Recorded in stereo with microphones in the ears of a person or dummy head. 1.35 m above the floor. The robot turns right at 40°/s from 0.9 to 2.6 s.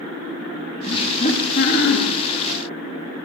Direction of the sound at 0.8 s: 25° left.